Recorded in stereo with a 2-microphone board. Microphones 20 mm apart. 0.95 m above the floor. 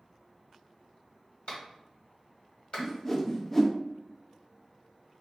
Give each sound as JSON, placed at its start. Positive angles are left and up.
{"t": 1.5, "sound": "a clap", "side_deg": 65, "distance_m": 2.0}
{"t": 2.8, "sound": "a whoosh", "side_deg": 25, "distance_m": 0.7}